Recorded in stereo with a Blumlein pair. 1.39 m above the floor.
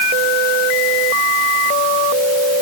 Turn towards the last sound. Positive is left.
No sound to turn to.